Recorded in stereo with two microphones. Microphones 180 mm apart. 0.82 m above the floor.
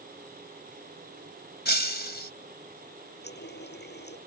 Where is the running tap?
70° left (ahead or behind).